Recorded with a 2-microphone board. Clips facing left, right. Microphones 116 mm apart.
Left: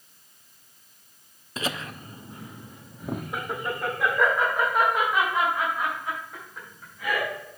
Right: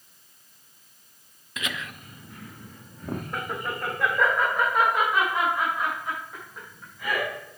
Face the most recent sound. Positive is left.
turn(degrees=-5)  # may be behind; listen again after turning